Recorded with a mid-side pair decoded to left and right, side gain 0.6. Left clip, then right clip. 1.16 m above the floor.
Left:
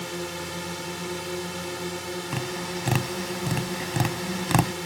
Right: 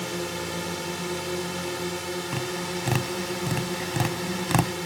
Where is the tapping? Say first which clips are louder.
Right 1 dB; 10° left.